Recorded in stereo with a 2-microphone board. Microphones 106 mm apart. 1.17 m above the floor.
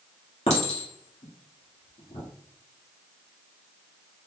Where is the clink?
85° left, 1.6 m.